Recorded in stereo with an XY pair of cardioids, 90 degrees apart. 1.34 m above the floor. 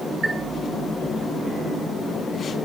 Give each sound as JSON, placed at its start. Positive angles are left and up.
{"t": 0.2, "sound": "a chime", "azimuth_deg": -25, "distance_m": 0.6}